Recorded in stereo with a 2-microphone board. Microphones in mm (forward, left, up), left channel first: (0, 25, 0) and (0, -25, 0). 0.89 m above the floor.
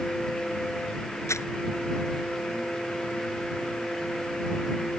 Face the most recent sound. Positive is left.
turn(degrees=75)  # may be behind; listen again after turning